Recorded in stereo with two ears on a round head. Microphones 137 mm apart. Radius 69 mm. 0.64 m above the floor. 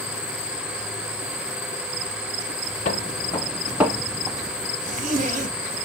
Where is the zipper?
50° right (ahead or behind), 1.3 m.